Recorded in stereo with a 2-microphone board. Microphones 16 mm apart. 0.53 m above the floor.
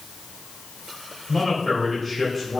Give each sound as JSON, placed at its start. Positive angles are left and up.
{"t": 1.3, "sound": "a man speaking", "side_deg": 15, "distance_m": 3.0}